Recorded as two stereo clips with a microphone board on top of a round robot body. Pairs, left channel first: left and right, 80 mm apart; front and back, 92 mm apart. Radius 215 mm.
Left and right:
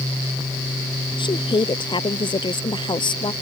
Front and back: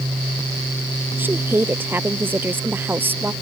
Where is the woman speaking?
110° left.